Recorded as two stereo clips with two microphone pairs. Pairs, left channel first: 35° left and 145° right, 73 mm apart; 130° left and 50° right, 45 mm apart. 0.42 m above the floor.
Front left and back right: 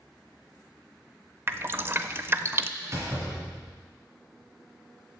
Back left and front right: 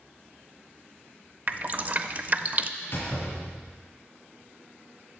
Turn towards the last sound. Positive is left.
turn(degrees=165)